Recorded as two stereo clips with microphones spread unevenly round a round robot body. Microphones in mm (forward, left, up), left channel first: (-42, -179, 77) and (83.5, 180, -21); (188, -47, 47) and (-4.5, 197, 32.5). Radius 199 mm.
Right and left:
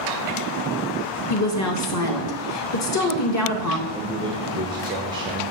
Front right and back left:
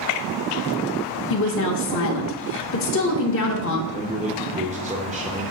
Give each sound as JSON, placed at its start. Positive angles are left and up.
{"t": 1.3, "sound": "a woman speaking", "azimuth_deg": -65, "distance_m": 0.9}
{"t": 3.9, "sound": "a man speaking", "azimuth_deg": 100, "distance_m": 1.1}